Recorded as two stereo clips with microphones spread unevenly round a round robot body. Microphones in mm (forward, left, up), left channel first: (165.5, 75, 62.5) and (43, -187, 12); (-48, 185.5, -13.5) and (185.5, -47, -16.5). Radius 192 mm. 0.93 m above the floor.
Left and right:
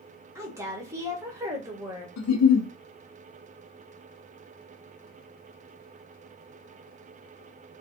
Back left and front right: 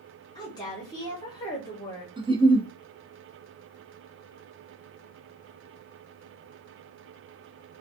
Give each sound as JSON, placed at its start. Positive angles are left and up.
{"t": 0.3, "sound": "a woman speaking", "azimuth_deg": -160, "distance_m": 0.7}
{"t": 2.2, "sound": "a giggle", "azimuth_deg": 35, "distance_m": 0.6}